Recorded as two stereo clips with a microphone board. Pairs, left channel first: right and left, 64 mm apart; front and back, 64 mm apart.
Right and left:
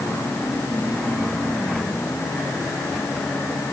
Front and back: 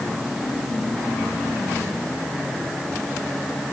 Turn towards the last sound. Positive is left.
No sound to turn to.